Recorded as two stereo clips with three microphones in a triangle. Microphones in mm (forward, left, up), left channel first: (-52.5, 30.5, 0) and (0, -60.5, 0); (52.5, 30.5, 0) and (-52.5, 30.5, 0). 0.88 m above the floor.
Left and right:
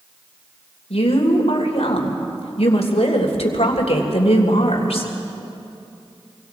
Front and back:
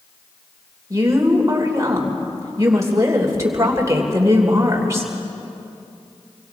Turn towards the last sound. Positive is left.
turn(degrees=120)